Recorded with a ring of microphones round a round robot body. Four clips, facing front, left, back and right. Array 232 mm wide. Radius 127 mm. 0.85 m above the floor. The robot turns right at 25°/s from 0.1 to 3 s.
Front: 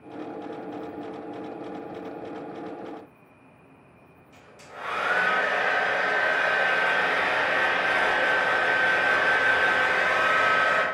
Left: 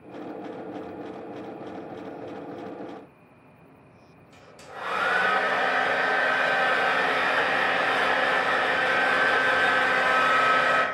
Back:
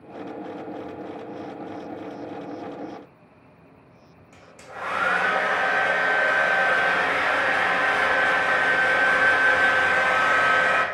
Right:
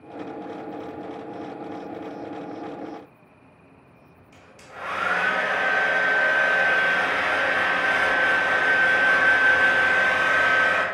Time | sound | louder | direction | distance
4.3 | a hair dryer | left 1 dB, back 4 dB | 160° left | 0.9 m